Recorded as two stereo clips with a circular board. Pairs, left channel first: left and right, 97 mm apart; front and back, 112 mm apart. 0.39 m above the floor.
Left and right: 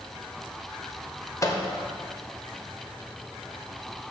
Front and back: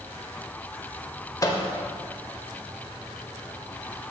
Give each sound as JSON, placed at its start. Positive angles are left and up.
{"t": 1.4, "sound": "a microwave", "azimuth_deg": 45, "distance_m": 0.8}